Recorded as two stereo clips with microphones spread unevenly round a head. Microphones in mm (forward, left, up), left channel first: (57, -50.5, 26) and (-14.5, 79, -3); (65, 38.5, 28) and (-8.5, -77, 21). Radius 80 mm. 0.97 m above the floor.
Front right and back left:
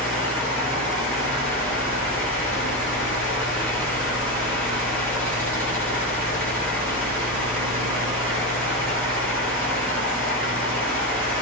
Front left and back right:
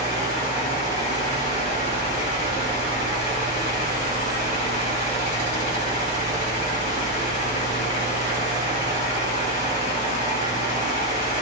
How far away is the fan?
About 2.5 m.